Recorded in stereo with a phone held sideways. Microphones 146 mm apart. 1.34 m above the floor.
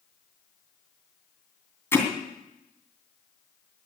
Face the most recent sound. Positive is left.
turn(degrees=15)  # may be behind; listen again after turning